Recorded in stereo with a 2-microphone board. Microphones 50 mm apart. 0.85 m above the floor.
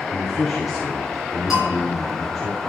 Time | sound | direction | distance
0.1 | a man speaking | 5° left (ahead or behind) | 2.5 m
1.5 | a bell | 10° right (ahead or behind) | 7 m